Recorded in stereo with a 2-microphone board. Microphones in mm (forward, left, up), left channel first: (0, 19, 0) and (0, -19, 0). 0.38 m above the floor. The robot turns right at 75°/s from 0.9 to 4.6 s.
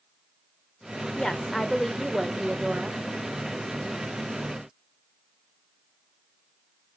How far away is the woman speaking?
About 0.8 m.